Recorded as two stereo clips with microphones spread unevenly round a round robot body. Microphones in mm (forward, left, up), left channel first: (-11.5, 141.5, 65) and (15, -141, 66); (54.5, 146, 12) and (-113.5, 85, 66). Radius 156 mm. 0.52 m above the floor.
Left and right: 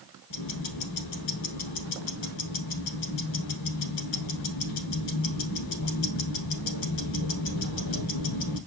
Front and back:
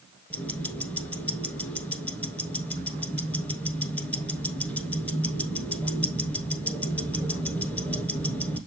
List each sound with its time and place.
0.3 s ticking: 105° left, 1.2 m